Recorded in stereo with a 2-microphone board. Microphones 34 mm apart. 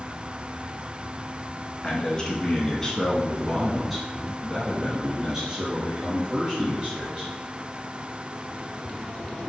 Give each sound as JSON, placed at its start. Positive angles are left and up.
{"t": 1.8, "sound": "a man speaking", "side_deg": 25, "distance_m": 1.5}